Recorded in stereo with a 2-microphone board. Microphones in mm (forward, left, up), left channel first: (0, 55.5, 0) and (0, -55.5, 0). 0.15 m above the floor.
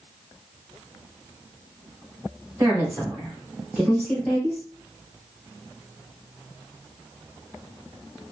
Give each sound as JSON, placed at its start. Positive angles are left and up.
{"t": 2.6, "sound": "a woman speaking", "side_deg": -20, "distance_m": 1.3}